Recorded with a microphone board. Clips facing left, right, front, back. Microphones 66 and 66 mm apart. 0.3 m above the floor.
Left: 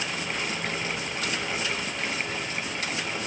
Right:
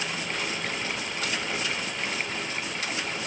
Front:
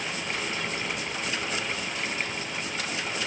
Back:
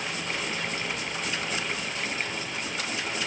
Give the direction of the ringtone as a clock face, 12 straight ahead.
No ringtone in this recording.